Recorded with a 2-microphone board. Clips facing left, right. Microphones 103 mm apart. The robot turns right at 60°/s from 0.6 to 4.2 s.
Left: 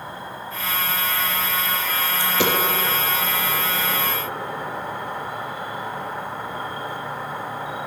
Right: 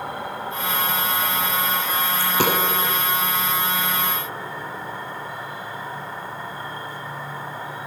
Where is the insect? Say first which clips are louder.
Right 4 dB; 100° right, 0.8 m; by 7.9 s 115° left, 0.8 m.